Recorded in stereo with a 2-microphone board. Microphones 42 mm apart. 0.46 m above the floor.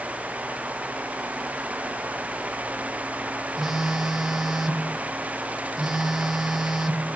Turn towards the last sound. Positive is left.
turn(degrees=-10)  # may be behind; listen again after turning